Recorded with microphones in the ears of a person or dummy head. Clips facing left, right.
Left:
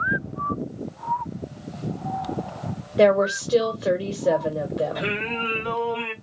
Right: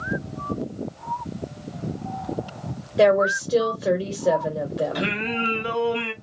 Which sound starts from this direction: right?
Singing, at 5.0 s.